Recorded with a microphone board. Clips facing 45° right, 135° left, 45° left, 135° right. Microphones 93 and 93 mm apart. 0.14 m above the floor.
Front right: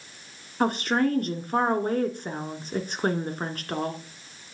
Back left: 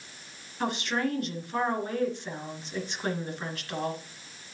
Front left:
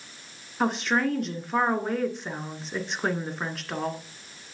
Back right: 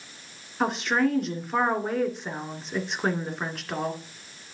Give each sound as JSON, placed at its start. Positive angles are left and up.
{"t": 0.6, "sound": "a woman speaking", "azimuth_deg": -45, "distance_m": 1.6}